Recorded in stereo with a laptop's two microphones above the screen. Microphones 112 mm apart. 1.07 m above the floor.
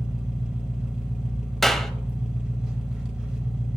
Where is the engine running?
5° right (ahead or behind), 1.1 m.